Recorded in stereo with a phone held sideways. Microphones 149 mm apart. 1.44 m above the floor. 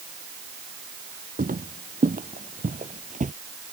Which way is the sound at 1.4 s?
70° right (ahead or behind).